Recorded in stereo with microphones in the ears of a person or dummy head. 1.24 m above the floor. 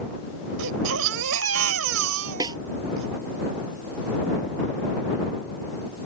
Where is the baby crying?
80° right.